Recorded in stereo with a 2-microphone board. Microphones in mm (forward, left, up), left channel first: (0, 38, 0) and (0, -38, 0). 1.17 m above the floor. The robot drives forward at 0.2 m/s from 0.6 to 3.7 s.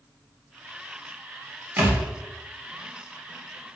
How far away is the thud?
About 0.9 m.